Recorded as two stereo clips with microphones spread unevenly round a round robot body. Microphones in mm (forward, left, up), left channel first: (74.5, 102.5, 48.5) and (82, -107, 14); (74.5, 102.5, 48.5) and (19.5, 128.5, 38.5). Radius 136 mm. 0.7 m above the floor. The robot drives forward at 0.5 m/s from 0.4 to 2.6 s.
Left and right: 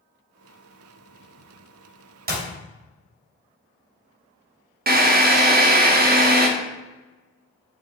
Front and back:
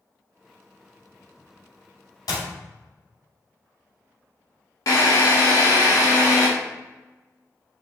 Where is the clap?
45° right, 3.5 m; by 2.5 s 50° right, 3.5 m.